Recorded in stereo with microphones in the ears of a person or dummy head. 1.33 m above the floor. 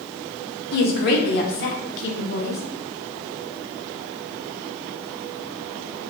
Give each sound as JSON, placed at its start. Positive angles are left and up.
{"t": 0.7, "sound": "a woman speaking", "side_deg": 55, "distance_m": 0.7}